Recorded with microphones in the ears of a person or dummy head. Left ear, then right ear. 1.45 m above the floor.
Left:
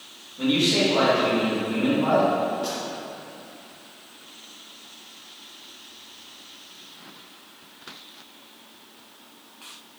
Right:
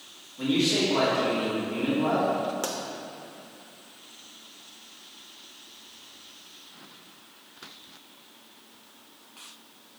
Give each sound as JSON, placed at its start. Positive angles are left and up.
{"t": 0.4, "sound": "a man speaking", "side_deg": 0, "distance_m": 1.8}
{"t": 2.6, "sound": "a pop", "side_deg": -50, "distance_m": 0.6}